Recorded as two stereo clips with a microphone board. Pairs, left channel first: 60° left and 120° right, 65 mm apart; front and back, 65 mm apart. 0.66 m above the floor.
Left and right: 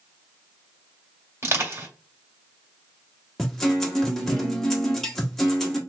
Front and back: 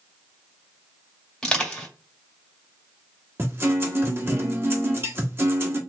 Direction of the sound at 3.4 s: 145° left.